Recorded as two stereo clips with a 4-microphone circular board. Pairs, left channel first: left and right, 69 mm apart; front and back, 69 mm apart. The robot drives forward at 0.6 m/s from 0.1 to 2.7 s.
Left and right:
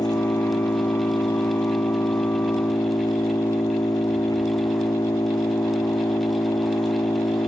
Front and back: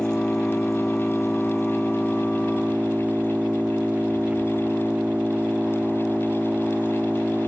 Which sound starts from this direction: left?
An engine running, at 0.0 s.